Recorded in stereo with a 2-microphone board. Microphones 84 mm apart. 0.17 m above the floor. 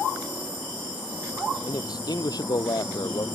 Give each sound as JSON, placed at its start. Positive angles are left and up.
{"t": 1.7, "sound": "a man speaking", "side_deg": 50}